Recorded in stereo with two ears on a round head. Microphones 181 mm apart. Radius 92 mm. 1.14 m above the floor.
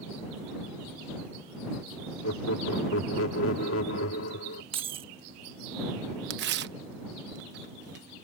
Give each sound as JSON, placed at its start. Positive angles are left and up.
{"t": 2.2, "sound": "laughter", "side_deg": 75}
{"t": 4.7, "sound": "keys jangling", "side_deg": -25}
{"t": 6.3, "sound": "tearing paper", "side_deg": -60}